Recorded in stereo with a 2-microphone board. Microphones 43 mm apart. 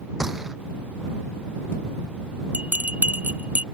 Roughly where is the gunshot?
Centre.